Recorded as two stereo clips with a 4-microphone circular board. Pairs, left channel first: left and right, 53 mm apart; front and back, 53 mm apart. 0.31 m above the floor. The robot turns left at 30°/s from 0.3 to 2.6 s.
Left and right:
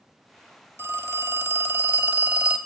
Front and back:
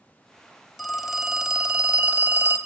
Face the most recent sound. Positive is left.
turn(degrees=-140)